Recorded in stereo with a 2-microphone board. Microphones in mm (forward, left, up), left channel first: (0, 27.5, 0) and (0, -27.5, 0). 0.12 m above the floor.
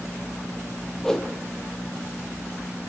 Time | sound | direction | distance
1.0 | a whoosh | 10° left (ahead or behind) | 1.0 m